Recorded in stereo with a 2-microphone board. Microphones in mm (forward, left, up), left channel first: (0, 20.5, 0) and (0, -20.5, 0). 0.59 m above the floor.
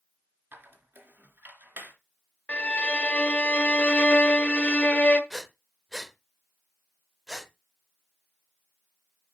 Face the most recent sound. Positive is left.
turn(degrees=0)  # may be behind; listen again after turning